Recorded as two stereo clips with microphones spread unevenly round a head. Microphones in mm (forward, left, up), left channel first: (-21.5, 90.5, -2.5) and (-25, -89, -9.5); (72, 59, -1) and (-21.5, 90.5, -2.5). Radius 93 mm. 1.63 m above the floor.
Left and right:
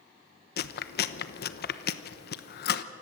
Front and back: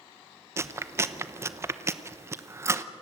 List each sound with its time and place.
0.6 s chewing: 100° left, 1.0 m